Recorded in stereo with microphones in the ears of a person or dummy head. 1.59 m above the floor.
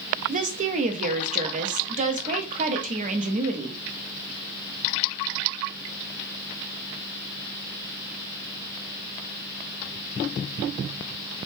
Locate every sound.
0.3 s a woman speaking: 35° right (ahead or behind), 0.5 m